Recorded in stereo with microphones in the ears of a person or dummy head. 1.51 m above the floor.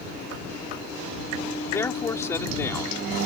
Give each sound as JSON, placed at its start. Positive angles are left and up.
{"t": 1.7, "sound": "a man speaking", "side_deg": 20}